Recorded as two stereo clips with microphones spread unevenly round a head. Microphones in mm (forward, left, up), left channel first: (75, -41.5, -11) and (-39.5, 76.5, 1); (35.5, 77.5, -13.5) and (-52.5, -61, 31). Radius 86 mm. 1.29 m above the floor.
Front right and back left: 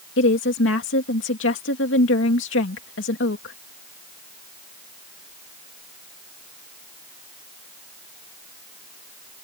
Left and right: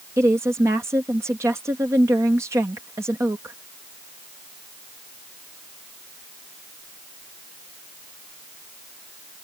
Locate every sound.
0.2 s a woman speaking: 45° right